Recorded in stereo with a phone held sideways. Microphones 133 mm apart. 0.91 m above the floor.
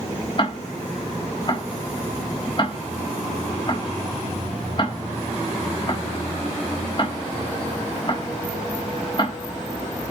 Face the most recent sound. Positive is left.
turn(degrees=40)  # may be behind; listen again after turning